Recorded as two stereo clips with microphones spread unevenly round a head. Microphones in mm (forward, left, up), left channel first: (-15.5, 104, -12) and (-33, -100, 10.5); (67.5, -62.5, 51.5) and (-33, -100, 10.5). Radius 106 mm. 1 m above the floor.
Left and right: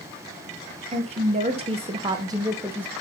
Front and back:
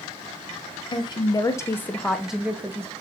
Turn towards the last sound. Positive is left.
turn(degrees=180)